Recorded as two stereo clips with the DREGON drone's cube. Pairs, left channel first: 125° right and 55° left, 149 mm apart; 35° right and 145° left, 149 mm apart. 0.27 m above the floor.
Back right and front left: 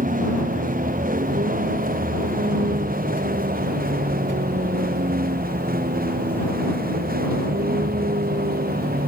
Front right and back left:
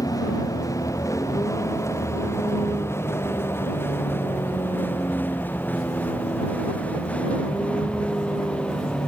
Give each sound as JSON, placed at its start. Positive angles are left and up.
{"t": 0.0, "sound": "a vehicle", "azimuth_deg": 30}